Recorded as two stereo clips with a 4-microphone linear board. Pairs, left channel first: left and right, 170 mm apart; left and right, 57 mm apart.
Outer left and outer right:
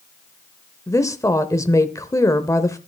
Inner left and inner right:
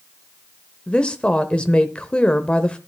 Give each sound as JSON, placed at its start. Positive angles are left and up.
{"t": 0.9, "sound": "a woman speaking", "side_deg": 20, "distance_m": 0.8}